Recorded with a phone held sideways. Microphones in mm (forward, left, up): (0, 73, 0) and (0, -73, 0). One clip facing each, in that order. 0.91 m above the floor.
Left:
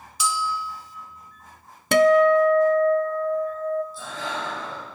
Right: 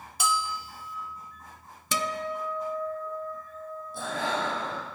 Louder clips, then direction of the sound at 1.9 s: Left 17 dB; 65° left (ahead or behind).